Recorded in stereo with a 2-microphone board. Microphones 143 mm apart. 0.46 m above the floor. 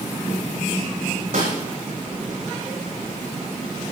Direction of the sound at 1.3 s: 85° right.